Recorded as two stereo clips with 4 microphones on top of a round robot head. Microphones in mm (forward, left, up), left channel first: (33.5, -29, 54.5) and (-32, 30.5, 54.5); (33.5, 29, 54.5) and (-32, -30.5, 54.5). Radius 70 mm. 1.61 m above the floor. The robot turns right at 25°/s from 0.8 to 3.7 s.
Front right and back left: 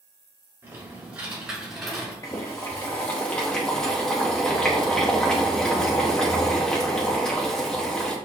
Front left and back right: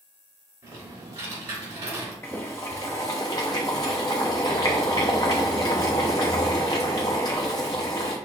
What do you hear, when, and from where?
0.6 s typing on a keyboard: 160° right, 3 m; by 2.1 s 125° right, 3 m
2.2 s boiling: 5° right, 0.5 m; by 8.2 s 30° left, 0.5 m